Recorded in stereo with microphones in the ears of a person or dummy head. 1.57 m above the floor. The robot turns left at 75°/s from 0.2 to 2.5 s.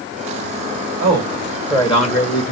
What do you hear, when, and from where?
1.0 s a man speaking: 140° right, 2 m; by 2.5 s 110° left, 2 m